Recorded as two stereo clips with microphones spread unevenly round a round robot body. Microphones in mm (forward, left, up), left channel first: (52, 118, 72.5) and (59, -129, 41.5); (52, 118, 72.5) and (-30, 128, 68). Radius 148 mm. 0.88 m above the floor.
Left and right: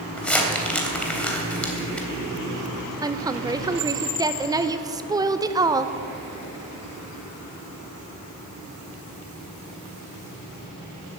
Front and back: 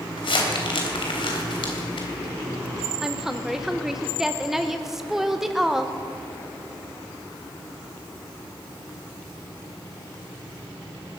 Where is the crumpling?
5° left, 3.5 m.